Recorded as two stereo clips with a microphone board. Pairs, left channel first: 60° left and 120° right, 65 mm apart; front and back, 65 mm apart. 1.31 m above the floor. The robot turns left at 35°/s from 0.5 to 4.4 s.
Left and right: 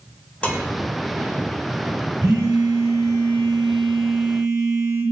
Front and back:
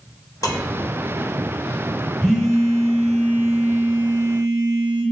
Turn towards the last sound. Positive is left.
turn(degrees=-165)